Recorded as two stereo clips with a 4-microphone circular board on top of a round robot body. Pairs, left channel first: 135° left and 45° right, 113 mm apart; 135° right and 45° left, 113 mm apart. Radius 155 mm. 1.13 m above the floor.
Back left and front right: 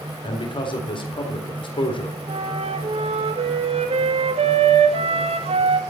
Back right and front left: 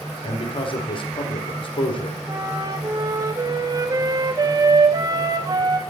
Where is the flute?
10° right, 2.5 m.